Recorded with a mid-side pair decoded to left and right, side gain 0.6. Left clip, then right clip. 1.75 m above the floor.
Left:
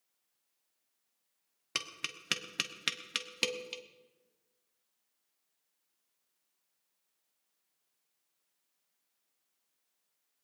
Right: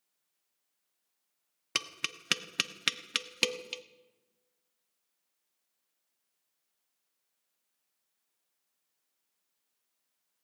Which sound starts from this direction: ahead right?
Tapping, at 1.8 s.